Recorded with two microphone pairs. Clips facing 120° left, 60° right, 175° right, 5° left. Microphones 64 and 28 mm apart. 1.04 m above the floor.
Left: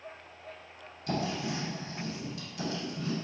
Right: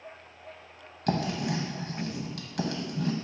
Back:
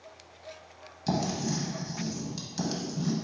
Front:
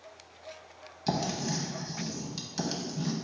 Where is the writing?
70° right, 0.8 m.